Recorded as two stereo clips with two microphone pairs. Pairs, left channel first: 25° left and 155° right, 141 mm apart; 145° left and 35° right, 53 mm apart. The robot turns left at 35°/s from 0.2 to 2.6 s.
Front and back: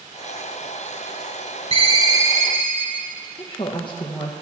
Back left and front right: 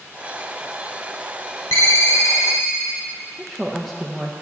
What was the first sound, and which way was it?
A ringtone, 155° left.